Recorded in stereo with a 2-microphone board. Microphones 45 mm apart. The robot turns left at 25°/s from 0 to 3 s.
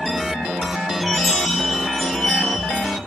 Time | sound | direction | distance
1.0 | a chime | 170° right | 8 m